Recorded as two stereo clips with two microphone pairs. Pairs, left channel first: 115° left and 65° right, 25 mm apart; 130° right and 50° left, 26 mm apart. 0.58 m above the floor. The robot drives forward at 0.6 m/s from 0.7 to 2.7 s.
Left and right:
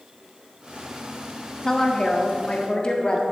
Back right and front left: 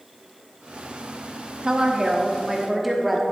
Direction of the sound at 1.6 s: 55° left.